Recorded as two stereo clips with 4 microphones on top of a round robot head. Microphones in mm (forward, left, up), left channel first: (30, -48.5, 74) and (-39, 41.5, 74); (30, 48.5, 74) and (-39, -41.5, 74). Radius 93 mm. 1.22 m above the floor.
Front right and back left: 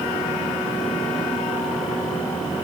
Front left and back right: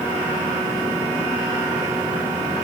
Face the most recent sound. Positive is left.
No sound to turn to.